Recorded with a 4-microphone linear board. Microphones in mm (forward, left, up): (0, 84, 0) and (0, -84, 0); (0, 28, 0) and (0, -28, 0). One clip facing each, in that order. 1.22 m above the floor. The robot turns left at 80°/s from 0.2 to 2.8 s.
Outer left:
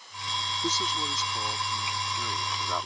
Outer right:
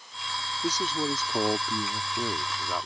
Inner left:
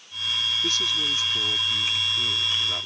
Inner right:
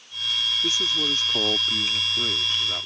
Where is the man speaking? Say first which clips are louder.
Outer right 4 dB, inner right 1 dB; 5° right; by 2.9 s straight behind.